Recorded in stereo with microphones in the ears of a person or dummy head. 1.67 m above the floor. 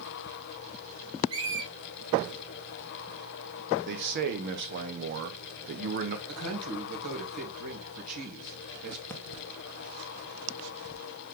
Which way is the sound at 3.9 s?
55° right (ahead or behind).